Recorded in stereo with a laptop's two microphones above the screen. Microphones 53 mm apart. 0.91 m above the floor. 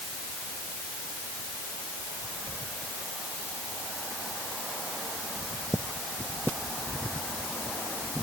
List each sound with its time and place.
Only background noise.